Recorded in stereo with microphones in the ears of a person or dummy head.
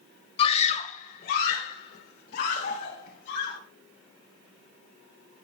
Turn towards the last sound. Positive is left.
turn(degrees=70)  # may be behind; listen again after turning